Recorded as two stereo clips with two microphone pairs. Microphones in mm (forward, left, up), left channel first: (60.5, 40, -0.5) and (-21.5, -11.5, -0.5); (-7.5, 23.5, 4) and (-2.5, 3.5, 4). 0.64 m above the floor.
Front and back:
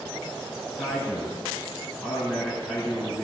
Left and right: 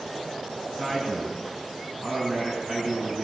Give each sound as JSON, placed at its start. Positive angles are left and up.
{"t": 0.7, "sound": "a man speaking", "azimuth_deg": -55, "distance_m": 6.0}